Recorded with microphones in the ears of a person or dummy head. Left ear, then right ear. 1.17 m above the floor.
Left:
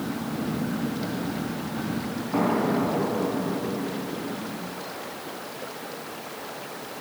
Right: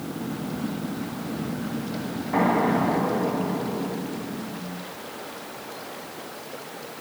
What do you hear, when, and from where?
2.3 s an explosion: 70° right (ahead or behind), 2 m